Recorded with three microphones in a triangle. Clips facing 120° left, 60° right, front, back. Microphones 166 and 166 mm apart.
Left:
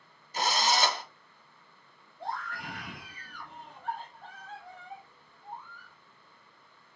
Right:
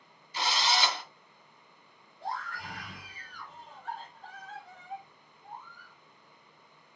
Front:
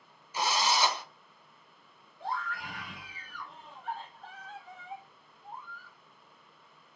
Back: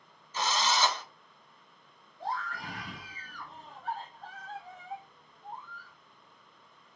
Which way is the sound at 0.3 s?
80° left.